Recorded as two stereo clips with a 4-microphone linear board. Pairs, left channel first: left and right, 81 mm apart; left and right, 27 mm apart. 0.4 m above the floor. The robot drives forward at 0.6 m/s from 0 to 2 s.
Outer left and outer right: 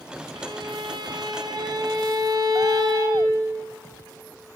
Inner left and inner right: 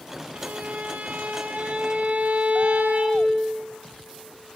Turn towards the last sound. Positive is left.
turn(degrees=-55)  # may be behind; listen again after turning